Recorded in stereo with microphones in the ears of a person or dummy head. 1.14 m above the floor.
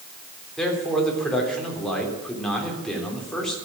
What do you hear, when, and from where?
0.6 s a man speaking: 5° left (ahead or behind), 2.5 m